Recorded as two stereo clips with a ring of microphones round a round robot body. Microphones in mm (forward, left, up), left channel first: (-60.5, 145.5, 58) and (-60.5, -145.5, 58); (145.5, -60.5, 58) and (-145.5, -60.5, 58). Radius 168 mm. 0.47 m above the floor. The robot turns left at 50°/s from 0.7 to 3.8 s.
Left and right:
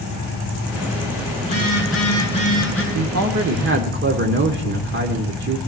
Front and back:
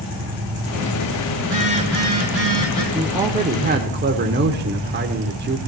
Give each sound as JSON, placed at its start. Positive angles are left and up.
{"t": 1.4, "sound": "a phone buzzing", "azimuth_deg": 75, "distance_m": 5.0}
{"t": 2.9, "sound": "a man speaking", "azimuth_deg": -90, "distance_m": 1.2}